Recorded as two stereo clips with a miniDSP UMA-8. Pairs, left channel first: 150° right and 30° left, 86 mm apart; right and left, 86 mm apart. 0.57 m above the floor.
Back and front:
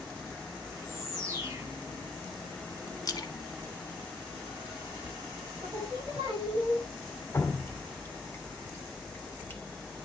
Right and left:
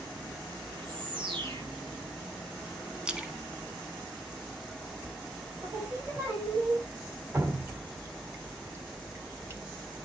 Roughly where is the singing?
Ahead left.